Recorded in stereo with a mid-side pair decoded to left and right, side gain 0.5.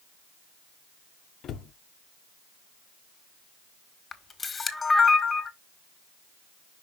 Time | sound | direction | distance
1.4 | a cupboard door | 60° left | 1.0 m
4.1 | a camera shutter | 30° left | 1.6 m